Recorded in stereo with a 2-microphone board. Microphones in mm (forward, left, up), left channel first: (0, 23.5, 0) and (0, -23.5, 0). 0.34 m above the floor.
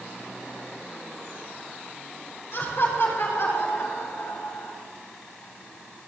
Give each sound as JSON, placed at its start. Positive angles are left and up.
{"t": 2.5, "sound": "laughter", "side_deg": 60, "distance_m": 5.5}